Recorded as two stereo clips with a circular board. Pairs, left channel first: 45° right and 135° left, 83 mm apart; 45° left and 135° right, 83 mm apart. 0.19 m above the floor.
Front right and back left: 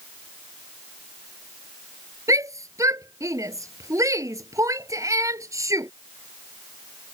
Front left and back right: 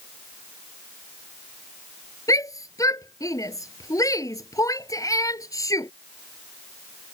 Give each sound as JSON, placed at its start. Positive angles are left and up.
{"t": 2.3, "sound": "a shout", "azimuth_deg": 90}